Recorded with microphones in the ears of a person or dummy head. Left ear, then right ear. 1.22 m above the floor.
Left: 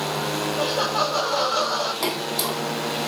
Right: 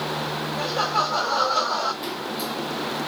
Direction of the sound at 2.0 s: 40° left (ahead or behind).